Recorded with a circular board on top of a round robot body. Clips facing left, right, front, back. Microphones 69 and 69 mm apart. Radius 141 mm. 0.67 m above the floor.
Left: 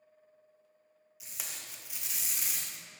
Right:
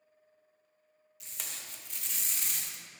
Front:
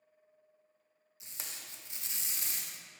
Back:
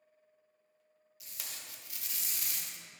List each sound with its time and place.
1.2 s tape being pulled: 15° left, 1.0 m